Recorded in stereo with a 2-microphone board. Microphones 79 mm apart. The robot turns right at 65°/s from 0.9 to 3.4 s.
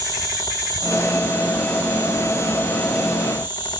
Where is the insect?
55° left, 8 m; by 3.8 s 145° right, 8 m.